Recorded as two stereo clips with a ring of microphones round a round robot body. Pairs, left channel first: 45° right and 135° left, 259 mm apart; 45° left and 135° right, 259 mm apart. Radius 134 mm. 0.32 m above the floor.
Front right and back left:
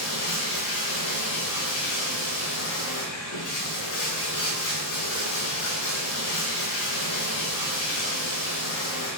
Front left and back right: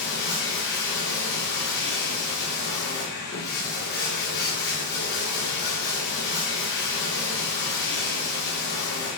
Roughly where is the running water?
Ahead.